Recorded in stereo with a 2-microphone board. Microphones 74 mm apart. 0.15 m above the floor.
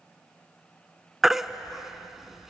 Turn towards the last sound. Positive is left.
turn(degrees=-5)  # may be behind; listen again after turning